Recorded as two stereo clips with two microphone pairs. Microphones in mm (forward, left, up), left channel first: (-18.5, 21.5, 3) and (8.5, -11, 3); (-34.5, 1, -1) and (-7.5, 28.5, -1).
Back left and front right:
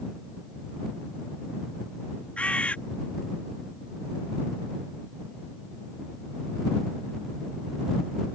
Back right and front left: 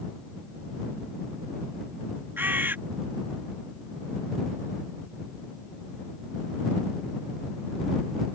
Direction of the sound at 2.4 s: 70° left.